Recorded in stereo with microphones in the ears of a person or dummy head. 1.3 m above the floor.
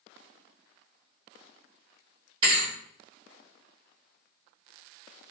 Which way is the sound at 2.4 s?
30° right (ahead or behind).